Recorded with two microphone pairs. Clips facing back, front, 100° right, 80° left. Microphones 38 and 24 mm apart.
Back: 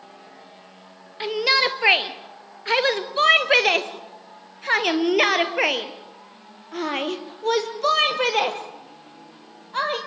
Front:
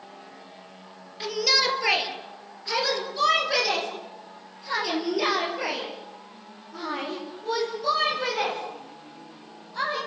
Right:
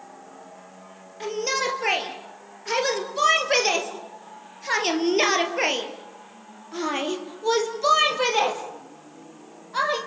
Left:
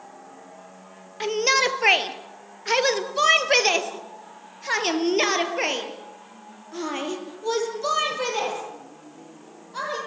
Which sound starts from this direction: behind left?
A shout, at 1.2 s.